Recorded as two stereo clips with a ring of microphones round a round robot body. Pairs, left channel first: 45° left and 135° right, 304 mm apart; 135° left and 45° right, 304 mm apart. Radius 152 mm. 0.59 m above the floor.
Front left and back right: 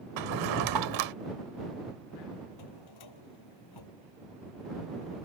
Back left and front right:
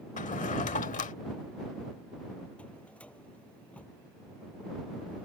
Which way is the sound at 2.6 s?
50° left.